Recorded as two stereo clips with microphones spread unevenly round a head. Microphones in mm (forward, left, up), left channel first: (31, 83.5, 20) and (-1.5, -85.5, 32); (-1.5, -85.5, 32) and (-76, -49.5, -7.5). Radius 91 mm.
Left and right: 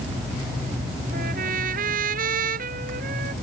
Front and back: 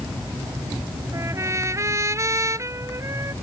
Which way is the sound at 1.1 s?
145° right.